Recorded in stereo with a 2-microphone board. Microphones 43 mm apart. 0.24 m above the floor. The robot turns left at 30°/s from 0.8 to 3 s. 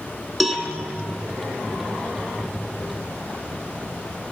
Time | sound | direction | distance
0.4 | a cowbell | 5° right (ahead or behind) | 1.0 m